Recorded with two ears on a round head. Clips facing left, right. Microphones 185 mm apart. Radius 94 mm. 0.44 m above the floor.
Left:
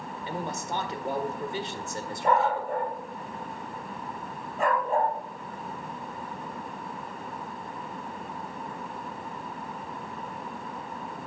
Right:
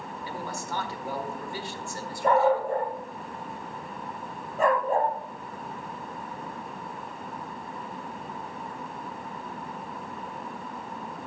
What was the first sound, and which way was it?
A man speaking, 20° left (ahead or behind).